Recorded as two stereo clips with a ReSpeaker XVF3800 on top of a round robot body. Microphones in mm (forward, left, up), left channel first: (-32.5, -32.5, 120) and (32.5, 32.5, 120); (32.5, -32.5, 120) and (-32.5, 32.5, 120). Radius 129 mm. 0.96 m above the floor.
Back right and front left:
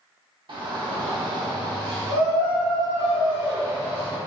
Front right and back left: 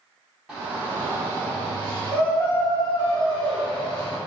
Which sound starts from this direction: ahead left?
A shout, at 0.5 s.